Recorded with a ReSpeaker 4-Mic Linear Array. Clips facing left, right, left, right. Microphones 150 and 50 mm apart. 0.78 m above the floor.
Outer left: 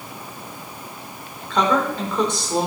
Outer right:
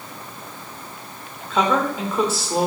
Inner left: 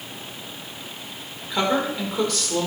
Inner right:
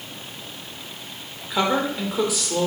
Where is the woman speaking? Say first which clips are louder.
Even, inner right 1 dB; 5° right (ahead or behind), 2.5 m.